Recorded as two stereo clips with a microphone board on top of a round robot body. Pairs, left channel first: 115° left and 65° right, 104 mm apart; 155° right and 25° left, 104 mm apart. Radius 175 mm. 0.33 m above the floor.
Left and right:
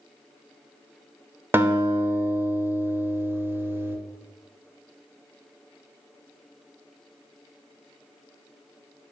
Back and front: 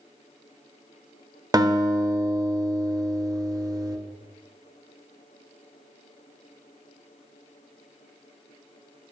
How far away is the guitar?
About 1.0 m.